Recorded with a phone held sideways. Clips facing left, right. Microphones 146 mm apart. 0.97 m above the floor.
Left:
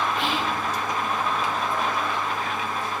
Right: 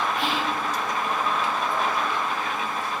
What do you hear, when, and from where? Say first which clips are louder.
0.2 s whispering: even; 20° left (ahead or behind), 4 m